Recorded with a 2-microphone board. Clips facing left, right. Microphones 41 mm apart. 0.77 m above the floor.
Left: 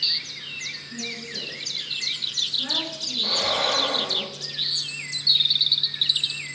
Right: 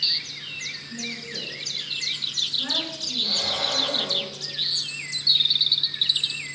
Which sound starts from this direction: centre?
A woman speaking, at 0.9 s.